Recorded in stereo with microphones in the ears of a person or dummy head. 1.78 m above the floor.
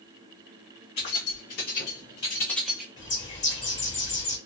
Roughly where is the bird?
Left.